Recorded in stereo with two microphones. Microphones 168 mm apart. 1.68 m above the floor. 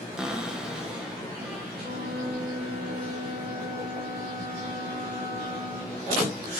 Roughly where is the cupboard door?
Centre.